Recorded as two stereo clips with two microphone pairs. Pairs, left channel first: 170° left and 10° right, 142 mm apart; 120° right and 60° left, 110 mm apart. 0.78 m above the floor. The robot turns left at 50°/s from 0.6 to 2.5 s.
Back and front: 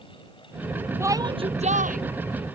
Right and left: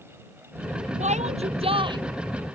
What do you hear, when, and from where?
1.0 s a shout: 60° left; by 2.0 s 10° left